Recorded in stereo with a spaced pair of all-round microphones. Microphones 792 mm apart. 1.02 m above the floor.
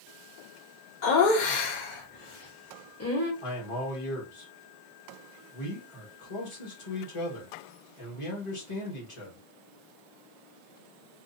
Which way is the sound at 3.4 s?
40° left (ahead or behind).